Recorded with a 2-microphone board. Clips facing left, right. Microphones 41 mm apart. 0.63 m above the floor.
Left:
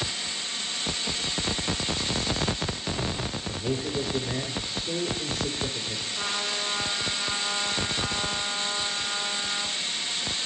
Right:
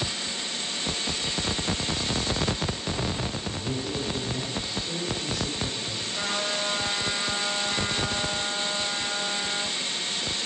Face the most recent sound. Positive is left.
turn(degrees=-60)  # may be behind; listen again after turning